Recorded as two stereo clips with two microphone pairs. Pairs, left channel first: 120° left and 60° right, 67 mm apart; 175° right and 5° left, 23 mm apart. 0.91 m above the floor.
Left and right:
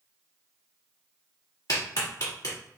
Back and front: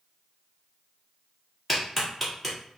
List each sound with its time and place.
1.7 s a clap: 95° left, 1.4 m